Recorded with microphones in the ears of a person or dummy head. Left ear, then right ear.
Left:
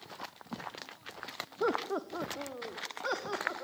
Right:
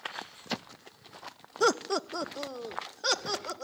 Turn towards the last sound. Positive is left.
turn(degrees=-75)  # may be behind; listen again after turning